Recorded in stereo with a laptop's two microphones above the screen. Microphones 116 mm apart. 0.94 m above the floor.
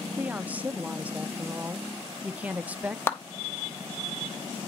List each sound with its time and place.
0.2 s a woman speaking: 15° right (ahead or behind), 0.7 m
3.1 s a clap: 20° left (ahead or behind), 0.9 m